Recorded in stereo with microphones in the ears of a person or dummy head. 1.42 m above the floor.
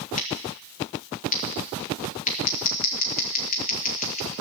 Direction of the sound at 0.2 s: 40° left (ahead or behind).